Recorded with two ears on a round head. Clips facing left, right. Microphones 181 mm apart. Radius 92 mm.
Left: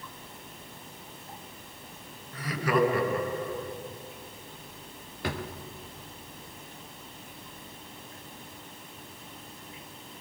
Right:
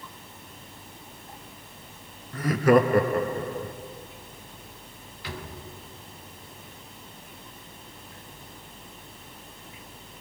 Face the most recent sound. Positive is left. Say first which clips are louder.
# left 5 dB
turn(degrees=40)  # may be behind; listen again after turning